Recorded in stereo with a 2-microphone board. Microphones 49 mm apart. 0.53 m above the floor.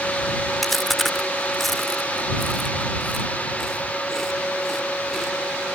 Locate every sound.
0.6 s chewing: centre (ahead or behind)